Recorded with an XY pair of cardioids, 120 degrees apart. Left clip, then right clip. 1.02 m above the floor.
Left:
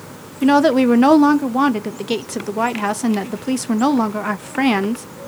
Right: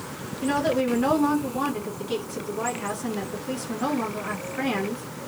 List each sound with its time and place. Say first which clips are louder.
0.4 s a woman speaking: left 10 dB; 65° left, 0.7 m